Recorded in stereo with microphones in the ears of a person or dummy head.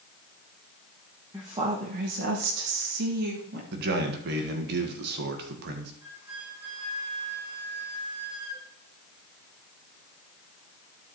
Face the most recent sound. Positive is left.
turn(degrees=-10)  # may be behind; listen again after turning